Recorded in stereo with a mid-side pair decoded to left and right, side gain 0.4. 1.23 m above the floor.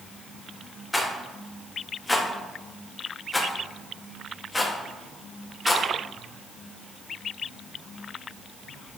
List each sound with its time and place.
0.9 s a rattle: 15° left, 1.6 m